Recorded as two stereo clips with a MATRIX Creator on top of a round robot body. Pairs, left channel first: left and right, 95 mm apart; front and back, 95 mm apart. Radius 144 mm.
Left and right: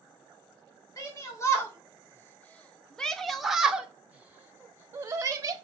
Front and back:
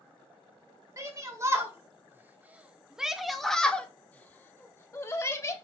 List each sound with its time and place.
1.0 s a shout: 135° left, 1.8 m; by 5.5 s 45° right, 1.8 m